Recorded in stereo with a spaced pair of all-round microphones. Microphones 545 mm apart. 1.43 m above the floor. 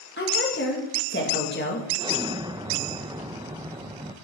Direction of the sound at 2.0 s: 10° right (ahead or behind).